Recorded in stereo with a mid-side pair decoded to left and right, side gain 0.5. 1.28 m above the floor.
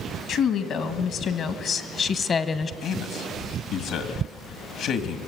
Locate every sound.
0.3 s a woman speaking: 70° left, 2 m; by 2.7 s 35° left, 1.0 m
2.8 s a man speaking: 70° left, 1.9 m